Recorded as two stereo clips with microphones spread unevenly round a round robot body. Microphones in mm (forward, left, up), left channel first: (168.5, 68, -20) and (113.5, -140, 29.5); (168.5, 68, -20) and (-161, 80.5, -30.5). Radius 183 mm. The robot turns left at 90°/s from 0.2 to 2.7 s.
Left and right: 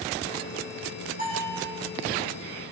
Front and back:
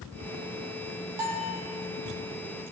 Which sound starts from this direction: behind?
A bell, at 1.2 s.